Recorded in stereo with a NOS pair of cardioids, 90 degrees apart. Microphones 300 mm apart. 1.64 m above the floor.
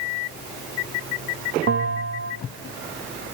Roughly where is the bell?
Ahead right.